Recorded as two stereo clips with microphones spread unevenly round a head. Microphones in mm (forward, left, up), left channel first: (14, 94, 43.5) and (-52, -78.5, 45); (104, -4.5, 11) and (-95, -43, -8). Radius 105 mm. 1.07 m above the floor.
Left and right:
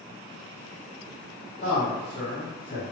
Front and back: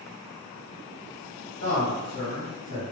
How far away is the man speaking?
About 1.8 m.